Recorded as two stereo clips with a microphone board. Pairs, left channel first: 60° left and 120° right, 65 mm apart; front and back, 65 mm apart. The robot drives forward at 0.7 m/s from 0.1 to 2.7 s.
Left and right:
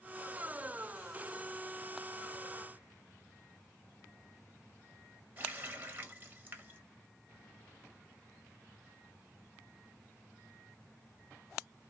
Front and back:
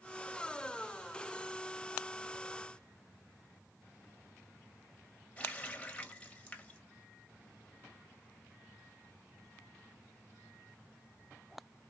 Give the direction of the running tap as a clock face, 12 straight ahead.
2 o'clock.